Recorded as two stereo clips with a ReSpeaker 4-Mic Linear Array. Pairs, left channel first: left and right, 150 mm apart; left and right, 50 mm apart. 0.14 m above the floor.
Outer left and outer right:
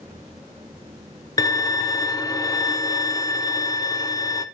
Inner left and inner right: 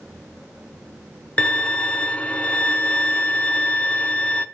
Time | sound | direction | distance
1.4 | a violin | 25° left (ahead or behind) | 0.8 m